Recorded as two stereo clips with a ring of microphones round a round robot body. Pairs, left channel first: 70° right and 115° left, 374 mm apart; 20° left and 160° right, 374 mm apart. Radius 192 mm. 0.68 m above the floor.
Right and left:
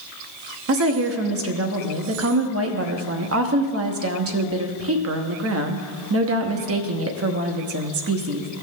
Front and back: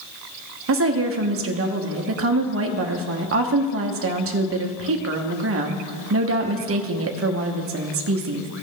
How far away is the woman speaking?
About 0.9 m.